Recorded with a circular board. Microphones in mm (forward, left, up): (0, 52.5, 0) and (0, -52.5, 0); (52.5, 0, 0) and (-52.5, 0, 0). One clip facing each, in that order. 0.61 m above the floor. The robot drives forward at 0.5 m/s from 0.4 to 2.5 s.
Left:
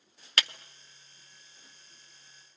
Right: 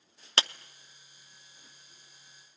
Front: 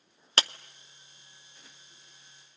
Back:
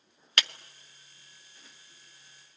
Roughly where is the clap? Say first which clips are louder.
Right 2 dB, front 3 dB; ahead right.